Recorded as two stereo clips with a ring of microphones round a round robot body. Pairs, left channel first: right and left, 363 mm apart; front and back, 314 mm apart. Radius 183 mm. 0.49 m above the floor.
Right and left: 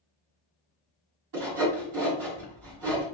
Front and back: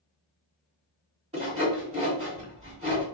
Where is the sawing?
115° left, 1.8 m.